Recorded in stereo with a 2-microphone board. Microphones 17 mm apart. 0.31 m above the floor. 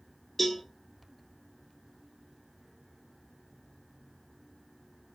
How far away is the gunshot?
I don't hear a gunshot.